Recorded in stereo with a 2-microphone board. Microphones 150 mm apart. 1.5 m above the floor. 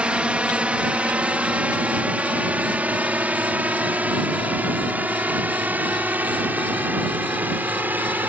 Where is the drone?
5° right (ahead or behind); by 8.3 s 10° right (ahead or behind).